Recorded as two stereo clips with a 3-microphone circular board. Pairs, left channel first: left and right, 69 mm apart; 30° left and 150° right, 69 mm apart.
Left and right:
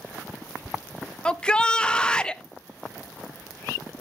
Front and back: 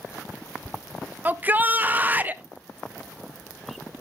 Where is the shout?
160° left, 0.5 m.